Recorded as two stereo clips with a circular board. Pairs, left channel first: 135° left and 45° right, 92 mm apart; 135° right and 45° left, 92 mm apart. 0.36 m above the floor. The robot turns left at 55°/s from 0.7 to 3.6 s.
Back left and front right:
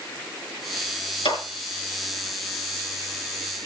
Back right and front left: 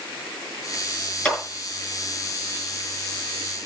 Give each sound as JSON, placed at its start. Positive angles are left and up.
{"t": 1.2, "sound": "a clap", "azimuth_deg": 145, "distance_m": 5.0}